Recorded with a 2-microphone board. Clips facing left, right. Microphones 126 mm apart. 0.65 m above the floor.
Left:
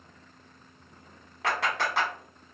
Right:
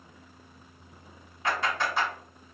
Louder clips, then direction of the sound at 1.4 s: Even; 70° left (ahead or behind).